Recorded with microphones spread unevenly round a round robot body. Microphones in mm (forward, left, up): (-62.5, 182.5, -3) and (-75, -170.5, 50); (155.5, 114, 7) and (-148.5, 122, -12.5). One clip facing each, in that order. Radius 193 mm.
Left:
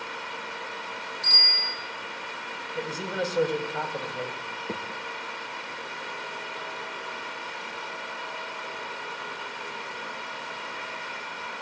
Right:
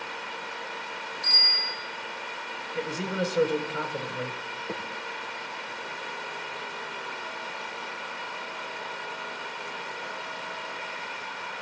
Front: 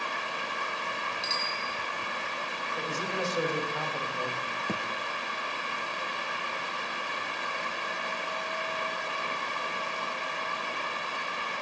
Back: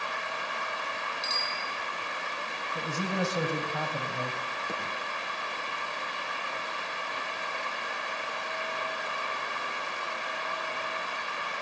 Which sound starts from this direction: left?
A bicycle bell, at 1.2 s.